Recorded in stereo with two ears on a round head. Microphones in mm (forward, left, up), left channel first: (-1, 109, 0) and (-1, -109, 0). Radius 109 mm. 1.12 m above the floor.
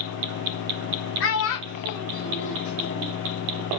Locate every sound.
1.2 s a child speaking: 50° left (ahead or behind), 1.0 m; by 3.2 s 35° left (ahead or behind), 1.2 m